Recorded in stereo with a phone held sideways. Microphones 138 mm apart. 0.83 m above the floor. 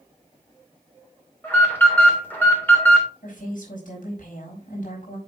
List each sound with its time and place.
1.4 s an alarm: 15° left (ahead or behind), 3 m
3.2 s a woman speaking: 75° left (ahead or behind), 5 m